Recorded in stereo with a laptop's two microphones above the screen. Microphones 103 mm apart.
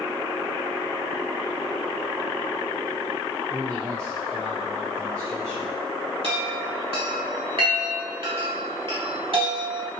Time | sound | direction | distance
3.5 | a man speaking | 30° right (ahead or behind) | 1.0 m
6.2 | a chime | 55° right (ahead or behind) | 1.3 m